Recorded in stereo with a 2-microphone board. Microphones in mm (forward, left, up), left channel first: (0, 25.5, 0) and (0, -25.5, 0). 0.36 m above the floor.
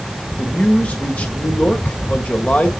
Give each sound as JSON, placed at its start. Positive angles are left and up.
{"t": 0.4, "sound": "a man speaking", "side_deg": 30, "distance_m": 1.6}